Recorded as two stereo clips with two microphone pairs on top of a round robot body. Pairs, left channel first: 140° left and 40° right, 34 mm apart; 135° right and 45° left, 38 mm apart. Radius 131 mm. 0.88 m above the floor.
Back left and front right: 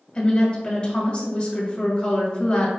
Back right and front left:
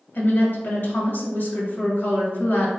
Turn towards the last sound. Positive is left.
turn(degrees=-165)